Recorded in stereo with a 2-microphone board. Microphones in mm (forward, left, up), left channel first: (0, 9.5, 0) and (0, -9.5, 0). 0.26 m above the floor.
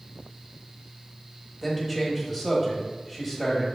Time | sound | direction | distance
1.6 | a man speaking | 5° right (ahead or behind) | 1.0 m